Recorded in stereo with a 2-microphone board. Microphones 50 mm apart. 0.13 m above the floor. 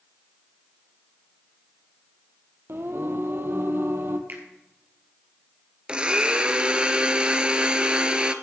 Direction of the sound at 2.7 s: 55° right (ahead or behind).